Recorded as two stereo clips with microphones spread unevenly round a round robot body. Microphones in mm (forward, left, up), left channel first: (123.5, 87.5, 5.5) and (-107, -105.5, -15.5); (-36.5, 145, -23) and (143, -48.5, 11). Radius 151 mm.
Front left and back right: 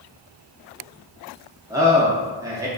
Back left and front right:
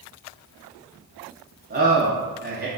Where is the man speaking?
80° right, 0.6 m.